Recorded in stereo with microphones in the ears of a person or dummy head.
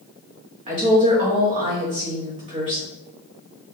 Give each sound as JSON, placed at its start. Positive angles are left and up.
{"t": 0.7, "sound": "a woman speaking", "side_deg": -35, "distance_m": 1.3}